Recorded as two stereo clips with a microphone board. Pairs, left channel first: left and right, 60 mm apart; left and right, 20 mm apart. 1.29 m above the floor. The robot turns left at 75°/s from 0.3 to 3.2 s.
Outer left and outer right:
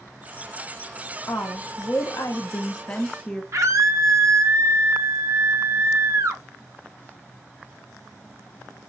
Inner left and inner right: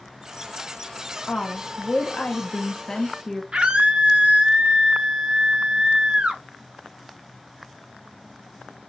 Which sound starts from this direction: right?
A scream, at 3.5 s.